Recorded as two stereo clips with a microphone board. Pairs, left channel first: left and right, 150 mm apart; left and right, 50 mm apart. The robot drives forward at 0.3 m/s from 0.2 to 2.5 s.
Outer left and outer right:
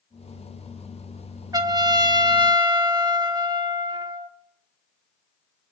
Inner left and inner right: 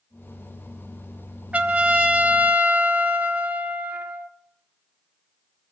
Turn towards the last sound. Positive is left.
turn(degrees=-30)  # may be behind; listen again after turning